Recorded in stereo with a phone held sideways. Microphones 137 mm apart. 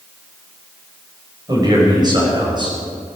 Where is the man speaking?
30° right (ahead or behind), 5 m; by 2.8 s 35° right (ahead or behind), 6.5 m.